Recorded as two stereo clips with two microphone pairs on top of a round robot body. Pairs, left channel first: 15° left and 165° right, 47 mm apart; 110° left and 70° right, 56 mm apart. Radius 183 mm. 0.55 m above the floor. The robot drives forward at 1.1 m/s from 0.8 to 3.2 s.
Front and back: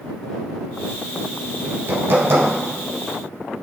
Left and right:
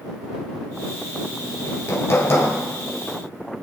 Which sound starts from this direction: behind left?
Hammering, at 1.6 s.